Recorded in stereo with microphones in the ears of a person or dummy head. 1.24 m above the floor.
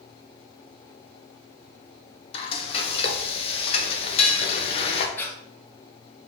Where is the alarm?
I don't hear an alarm.